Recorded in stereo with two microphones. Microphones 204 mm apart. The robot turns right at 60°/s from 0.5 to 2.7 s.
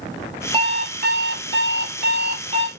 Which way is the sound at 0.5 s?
155° right.